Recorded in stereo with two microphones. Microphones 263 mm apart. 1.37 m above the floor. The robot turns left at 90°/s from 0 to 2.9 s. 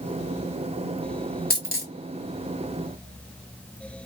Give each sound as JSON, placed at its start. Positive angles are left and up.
{"t": 1.5, "sound": "a dropped coin", "side_deg": 35, "distance_m": 1.2}